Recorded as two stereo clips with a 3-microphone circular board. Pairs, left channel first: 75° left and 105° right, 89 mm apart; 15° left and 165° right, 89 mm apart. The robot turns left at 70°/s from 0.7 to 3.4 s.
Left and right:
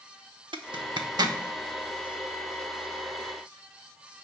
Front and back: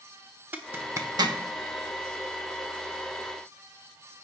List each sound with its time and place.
0.5 s a zipper: 100° right, 0.7 m; by 1.4 s 145° right, 0.7 m